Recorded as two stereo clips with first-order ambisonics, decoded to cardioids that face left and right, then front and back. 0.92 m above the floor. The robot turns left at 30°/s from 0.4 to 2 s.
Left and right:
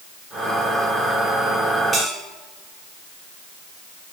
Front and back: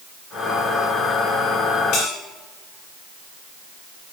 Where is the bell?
20° right, 1.9 m.